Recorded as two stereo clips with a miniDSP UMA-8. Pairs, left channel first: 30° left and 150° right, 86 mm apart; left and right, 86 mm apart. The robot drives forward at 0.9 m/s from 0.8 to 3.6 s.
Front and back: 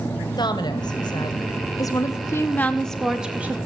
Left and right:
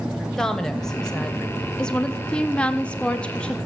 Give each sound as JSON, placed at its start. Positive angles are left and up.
{"t": 0.4, "sound": "a woman speaking", "azimuth_deg": 5, "distance_m": 2.0}